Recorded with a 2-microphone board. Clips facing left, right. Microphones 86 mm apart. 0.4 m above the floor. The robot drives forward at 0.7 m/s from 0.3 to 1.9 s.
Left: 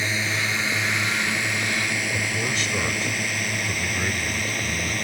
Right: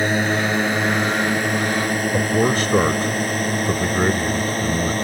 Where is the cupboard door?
No cupboard door in this recording.